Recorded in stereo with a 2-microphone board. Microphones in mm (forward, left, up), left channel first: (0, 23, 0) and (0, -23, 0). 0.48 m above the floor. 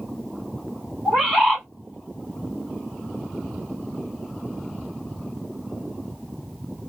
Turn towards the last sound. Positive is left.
turn(degrees=-5)  # may be behind; listen again after turning